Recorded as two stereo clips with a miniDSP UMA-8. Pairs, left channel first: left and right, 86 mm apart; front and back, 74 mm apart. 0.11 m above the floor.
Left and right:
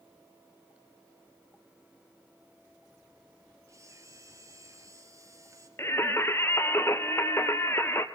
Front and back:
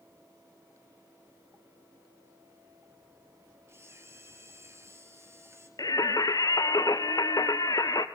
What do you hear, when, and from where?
3.7 s a camera shutter: 135° right, 2.5 m
5.8 s singing: 30° left, 0.9 m